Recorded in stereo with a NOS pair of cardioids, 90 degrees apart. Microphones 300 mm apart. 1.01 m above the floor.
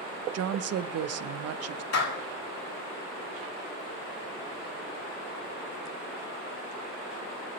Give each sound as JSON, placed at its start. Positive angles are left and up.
{"t": 0.3, "sound": "a woman speaking", "azimuth_deg": -55, "distance_m": 0.7}
{"t": 1.9, "sound": "a clap", "azimuth_deg": 55, "distance_m": 7.5}